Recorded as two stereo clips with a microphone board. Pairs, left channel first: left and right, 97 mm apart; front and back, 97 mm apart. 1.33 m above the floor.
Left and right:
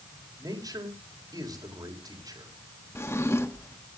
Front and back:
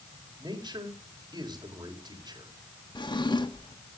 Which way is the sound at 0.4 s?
140° right.